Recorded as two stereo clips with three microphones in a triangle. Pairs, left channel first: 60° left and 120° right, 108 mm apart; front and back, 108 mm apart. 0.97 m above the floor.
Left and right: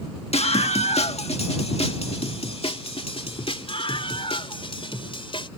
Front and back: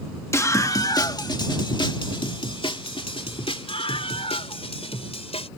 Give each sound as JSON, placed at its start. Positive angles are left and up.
{"t": 0.3, "sound": "a scream", "azimuth_deg": 65}